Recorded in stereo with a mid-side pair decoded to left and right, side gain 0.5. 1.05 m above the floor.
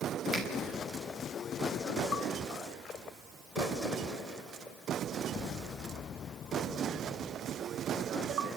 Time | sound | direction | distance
0.3 | a finger snap | 40° right | 5 m